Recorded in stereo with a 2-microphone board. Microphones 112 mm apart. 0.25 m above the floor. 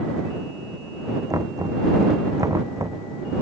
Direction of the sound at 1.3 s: 30° right (ahead or behind).